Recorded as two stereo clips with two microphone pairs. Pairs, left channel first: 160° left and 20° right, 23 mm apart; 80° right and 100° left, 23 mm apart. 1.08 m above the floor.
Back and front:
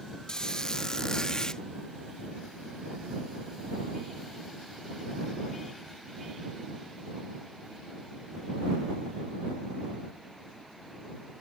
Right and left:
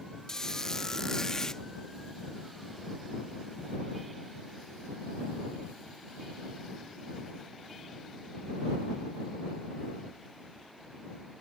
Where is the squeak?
140° right.